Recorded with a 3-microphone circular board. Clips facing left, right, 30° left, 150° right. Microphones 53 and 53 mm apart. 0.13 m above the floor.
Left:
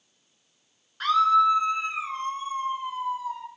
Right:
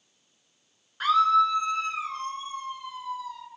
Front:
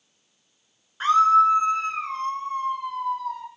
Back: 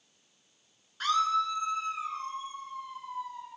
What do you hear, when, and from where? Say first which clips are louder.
1.0 s a scream: left 1 dB, front 11 dB; 15° right, 1.5 m; by 3.5 s 35° left, 4 m